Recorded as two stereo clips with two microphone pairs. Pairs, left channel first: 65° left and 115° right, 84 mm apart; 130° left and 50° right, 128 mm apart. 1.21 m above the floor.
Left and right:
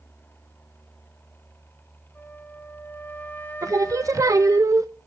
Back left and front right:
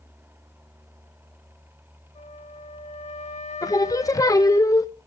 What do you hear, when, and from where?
2.1 s a flute: 130° left, 1.7 m
3.6 s singing: 165° right, 0.9 m